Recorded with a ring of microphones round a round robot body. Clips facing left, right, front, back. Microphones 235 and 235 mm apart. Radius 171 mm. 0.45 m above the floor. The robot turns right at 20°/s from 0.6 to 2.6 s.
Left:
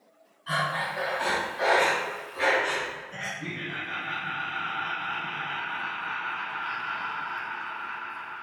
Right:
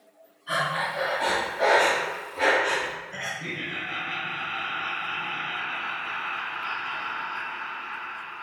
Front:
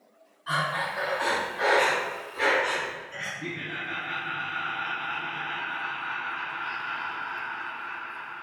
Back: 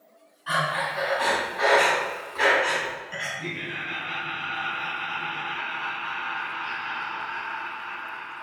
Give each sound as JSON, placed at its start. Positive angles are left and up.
{"t": 0.5, "sound": "breathing", "azimuth_deg": 125, "distance_m": 2.5}
{"t": 3.4, "sound": "laughter", "azimuth_deg": -175, "distance_m": 2.5}